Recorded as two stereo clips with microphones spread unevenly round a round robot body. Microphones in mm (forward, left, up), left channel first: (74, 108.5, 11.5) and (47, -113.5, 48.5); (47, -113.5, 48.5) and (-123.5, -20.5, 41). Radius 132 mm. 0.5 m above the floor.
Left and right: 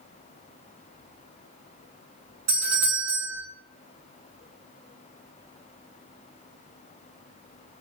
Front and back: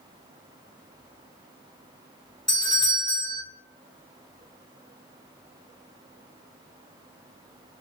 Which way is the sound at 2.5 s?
95° right.